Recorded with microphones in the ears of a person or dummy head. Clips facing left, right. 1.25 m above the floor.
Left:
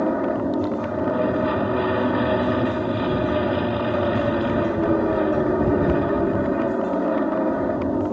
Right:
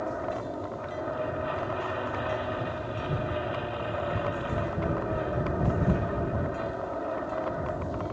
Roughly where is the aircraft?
Left.